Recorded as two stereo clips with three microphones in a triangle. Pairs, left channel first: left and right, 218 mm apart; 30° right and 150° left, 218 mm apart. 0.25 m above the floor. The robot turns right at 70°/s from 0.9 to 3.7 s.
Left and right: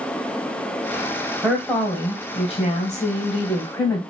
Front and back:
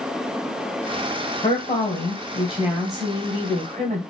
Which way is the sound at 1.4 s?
10° right.